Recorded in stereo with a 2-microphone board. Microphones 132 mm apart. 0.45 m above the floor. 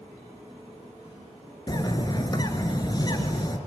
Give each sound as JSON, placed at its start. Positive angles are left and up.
{"t": 1.7, "sound": "a bird", "side_deg": 30, "distance_m": 1.4}